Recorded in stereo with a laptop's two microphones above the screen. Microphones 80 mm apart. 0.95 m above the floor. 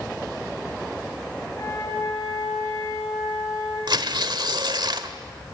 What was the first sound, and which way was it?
A flute, 55° left (ahead or behind).